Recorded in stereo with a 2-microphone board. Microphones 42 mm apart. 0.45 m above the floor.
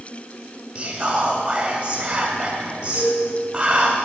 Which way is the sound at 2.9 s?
45° right (ahead or behind).